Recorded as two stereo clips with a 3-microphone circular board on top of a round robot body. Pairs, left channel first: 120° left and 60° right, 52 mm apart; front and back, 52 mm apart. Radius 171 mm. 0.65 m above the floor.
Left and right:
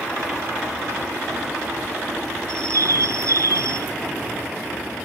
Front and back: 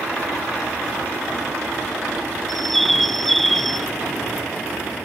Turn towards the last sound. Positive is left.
turn(degrees=-90)